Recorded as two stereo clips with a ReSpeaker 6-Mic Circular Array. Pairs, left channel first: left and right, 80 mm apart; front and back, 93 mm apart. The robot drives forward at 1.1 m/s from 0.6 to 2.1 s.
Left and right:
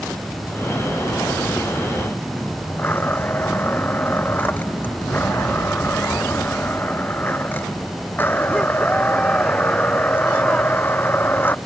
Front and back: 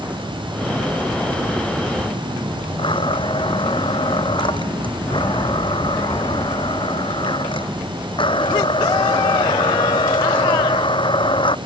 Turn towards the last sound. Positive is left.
turn(degrees=25)